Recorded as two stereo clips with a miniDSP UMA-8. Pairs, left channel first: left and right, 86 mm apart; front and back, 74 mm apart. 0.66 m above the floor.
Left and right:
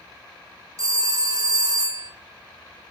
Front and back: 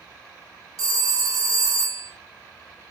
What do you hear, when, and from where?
0.8 s a phone ringing: 140° right, 0.8 m